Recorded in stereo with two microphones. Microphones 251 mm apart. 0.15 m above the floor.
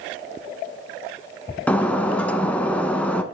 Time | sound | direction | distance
1.7 | breaking glass | 5° left (ahead or behind) | 0.7 m